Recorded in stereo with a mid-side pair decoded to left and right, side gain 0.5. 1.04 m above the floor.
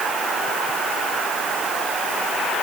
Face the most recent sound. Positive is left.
No sound to turn to.